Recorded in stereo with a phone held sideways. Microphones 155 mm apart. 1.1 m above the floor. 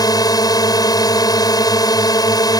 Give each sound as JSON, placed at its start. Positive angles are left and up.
{"t": 0.0, "sound": "a drone", "side_deg": 25}